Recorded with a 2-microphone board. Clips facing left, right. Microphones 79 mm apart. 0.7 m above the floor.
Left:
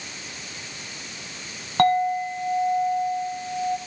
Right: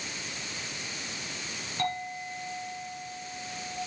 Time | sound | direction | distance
1.8 | a clink | 60° left (ahead or behind) | 4.5 m